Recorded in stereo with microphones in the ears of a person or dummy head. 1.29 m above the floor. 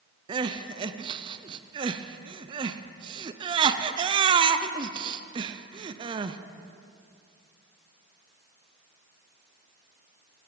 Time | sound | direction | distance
0.3 | crying | 25° right (ahead or behind) | 0.5 m